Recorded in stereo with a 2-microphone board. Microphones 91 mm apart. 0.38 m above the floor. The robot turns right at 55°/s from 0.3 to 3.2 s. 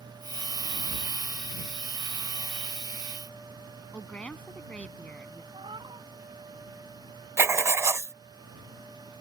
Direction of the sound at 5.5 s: 70° right (ahead or behind).